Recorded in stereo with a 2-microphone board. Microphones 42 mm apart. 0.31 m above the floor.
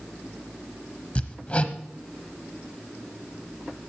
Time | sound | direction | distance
1.1 | hammering | 35° left (ahead or behind) | 0.9 m